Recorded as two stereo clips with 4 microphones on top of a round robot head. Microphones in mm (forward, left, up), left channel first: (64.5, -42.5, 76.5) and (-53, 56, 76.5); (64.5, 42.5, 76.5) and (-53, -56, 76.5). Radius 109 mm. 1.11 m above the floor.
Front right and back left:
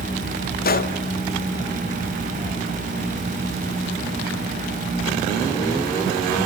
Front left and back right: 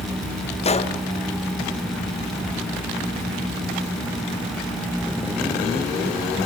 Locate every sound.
0.6 s a gunshot: 10° right, 1.1 m